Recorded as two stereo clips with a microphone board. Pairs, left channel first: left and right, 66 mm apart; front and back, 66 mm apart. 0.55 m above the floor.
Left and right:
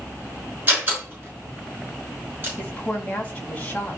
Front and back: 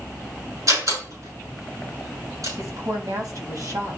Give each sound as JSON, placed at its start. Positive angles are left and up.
{"t": 0.7, "sound": "a door slam", "azimuth_deg": -155, "distance_m": 6.0}
{"t": 2.6, "sound": "a woman speaking", "azimuth_deg": 160, "distance_m": 3.0}